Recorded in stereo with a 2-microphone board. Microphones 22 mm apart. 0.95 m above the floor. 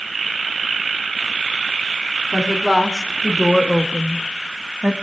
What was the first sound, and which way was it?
A woman speaking, 5° left (ahead or behind).